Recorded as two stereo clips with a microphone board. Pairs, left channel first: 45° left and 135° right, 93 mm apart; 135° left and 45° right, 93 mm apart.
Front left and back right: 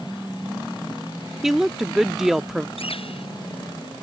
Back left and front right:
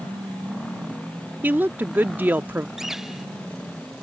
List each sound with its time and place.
1.4 s a woman speaking: 55° right
2.8 s a bird: 40° left